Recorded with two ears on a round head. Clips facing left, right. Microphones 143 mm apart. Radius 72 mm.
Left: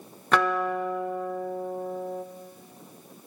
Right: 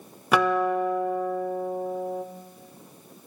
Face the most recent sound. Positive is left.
turn(degrees=-10)  # may be behind; listen again after turning